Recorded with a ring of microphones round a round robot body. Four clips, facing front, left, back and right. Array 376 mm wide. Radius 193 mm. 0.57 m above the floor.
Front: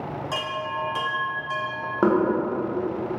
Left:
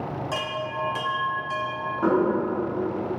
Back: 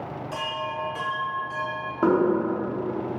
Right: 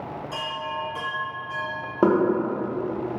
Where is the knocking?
65° right, 0.6 m.